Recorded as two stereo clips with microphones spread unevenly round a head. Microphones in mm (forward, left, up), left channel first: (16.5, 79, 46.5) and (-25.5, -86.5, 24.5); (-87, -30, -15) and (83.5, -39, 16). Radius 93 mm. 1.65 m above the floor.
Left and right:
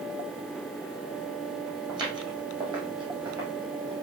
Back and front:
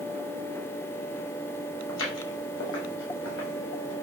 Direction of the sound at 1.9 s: 175° right.